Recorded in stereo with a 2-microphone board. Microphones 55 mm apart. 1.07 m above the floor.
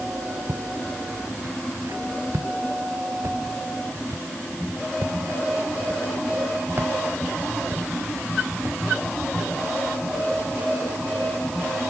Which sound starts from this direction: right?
Footsteps, at 0.5 s.